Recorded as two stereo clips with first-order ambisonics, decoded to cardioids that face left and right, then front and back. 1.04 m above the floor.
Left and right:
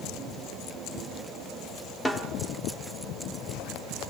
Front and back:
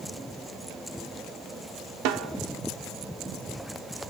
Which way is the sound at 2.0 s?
170° left.